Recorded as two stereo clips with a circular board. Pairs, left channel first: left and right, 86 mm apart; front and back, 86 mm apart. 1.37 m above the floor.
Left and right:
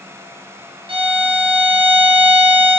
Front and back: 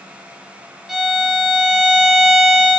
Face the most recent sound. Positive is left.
turn(degrees=-95)